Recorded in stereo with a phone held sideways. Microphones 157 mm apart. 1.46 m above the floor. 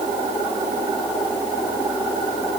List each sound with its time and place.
Only background noise.